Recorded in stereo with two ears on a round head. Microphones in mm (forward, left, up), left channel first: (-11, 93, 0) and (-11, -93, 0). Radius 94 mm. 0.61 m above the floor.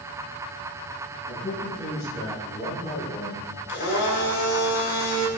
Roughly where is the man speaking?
Left.